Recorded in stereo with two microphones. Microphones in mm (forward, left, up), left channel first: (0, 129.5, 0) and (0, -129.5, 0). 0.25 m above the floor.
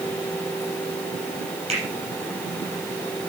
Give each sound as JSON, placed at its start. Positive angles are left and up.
{"t": 1.7, "sound": "a finger snap", "side_deg": -25, "distance_m": 6.0}